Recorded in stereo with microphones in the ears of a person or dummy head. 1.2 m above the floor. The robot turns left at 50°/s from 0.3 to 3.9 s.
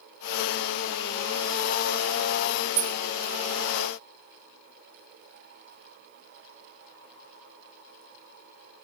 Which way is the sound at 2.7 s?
25° right (ahead or behind).